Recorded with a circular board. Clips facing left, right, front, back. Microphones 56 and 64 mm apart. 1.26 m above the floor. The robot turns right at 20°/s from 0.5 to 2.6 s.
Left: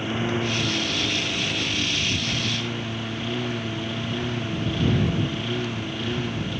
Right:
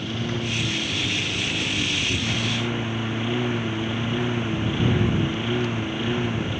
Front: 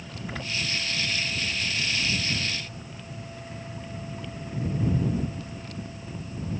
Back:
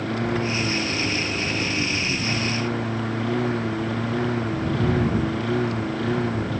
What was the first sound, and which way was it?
A lawn mower, 155° left.